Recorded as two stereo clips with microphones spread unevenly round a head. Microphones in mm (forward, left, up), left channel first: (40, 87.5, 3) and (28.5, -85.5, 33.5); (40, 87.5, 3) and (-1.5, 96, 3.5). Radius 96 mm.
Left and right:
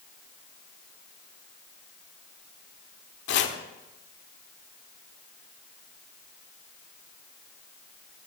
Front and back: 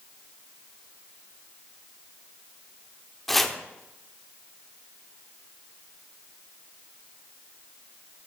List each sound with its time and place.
3.3 s chopping: 70° left, 1.2 m